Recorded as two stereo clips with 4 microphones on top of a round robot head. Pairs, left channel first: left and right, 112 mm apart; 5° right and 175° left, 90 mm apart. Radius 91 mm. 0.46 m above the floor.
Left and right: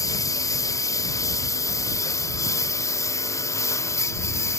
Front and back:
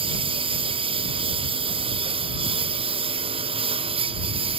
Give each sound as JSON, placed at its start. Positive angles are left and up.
{"t": 0.0, "sound": "a lawn mower", "azimuth_deg": 150}